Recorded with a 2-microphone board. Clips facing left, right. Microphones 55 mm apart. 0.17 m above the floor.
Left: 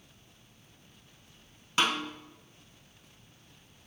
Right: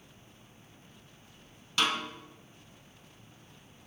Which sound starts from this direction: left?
A snare drum, at 1.8 s.